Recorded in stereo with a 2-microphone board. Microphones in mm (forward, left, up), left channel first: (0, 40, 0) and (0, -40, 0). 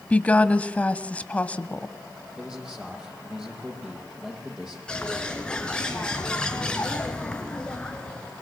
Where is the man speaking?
10° right (ahead or behind), 8.5 m.